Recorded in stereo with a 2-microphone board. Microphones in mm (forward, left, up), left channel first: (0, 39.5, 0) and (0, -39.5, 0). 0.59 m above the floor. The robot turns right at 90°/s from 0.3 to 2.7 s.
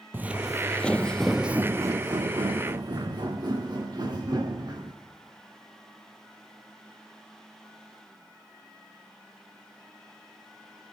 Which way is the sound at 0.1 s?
30° right (ahead or behind).